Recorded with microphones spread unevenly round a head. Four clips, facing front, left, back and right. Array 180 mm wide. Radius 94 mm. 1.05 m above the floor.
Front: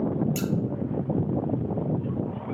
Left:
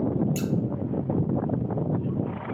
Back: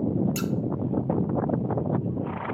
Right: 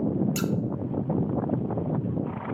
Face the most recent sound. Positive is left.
turn(degrees=-120)